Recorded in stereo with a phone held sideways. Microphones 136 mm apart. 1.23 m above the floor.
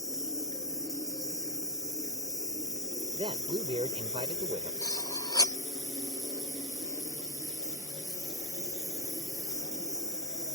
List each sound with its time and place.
0.0 s an insect: 25° left (ahead or behind)
3.1 s a man speaking: 45° right (ahead or behind)
4.8 s cutlery clinking: 25° left (ahead or behind)